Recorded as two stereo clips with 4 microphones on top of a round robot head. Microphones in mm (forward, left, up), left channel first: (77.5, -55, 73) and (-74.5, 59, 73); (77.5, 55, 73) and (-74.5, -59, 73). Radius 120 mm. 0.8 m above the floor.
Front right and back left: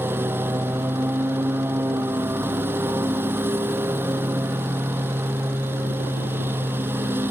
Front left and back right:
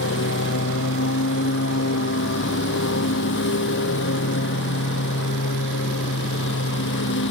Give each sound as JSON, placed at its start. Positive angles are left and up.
{"t": 0.0, "sound": "a lawn mower", "azimuth_deg": 65}